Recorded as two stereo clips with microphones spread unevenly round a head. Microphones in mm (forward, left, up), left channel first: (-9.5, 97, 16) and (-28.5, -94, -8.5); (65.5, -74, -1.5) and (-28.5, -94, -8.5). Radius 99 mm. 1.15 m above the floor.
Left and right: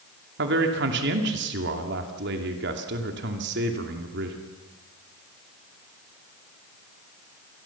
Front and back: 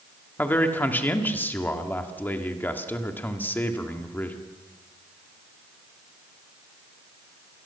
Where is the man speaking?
60° right, 2.5 m.